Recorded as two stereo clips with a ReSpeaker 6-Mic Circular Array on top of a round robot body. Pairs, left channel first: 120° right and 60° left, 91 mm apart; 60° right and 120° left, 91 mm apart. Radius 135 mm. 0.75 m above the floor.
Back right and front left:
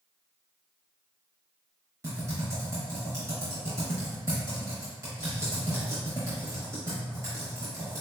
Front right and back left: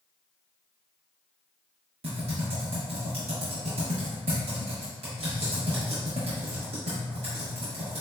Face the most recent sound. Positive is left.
turn(degrees=120)